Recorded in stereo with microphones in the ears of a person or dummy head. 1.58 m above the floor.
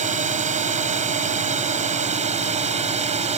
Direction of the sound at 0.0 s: 45° right (ahead or behind).